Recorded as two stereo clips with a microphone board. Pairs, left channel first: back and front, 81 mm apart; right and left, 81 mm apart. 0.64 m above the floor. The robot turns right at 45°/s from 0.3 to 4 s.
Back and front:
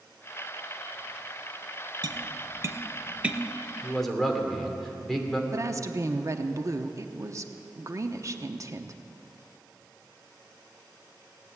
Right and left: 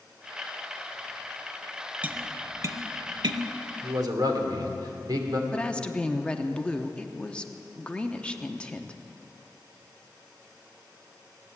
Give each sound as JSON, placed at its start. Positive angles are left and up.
{"t": 2.0, "sound": "tapping", "azimuth_deg": 20, "distance_m": 0.8}
{"t": 3.8, "sound": "a man speaking", "azimuth_deg": 85, "distance_m": 2.5}
{"t": 5.5, "sound": "a woman speaking", "azimuth_deg": -20, "distance_m": 0.9}